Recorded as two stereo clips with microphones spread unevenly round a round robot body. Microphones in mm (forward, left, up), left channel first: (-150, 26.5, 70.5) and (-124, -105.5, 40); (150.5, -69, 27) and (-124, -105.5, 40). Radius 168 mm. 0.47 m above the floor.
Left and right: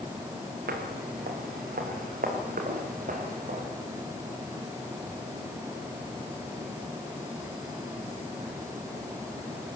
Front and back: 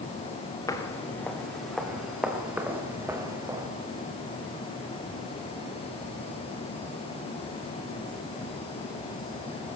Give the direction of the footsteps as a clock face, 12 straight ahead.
2 o'clock.